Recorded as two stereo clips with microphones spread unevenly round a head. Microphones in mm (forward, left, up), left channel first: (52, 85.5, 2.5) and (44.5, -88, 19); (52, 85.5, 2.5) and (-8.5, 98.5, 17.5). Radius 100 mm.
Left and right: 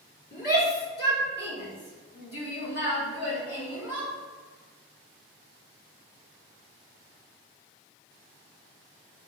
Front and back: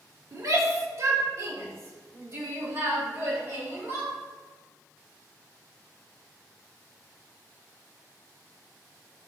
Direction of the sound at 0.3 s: 135° left.